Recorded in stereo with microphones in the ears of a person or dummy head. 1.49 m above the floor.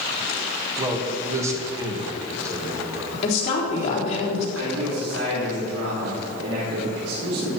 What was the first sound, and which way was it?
A man speaking, 15° right (ahead or behind).